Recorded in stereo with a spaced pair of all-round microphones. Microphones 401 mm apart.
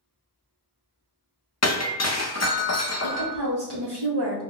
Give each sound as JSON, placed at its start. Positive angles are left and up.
{"t": 1.6, "sound": "breaking glass", "side_deg": 40, "distance_m": 0.7}
{"t": 3.0, "sound": "a woman speaking", "side_deg": -75, "distance_m": 1.7}